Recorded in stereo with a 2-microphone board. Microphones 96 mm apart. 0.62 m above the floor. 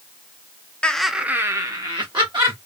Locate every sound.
0.8 s laughter: 10° left (ahead or behind), 0.7 m; by 2.6 s 55° right (ahead or behind), 1.3 m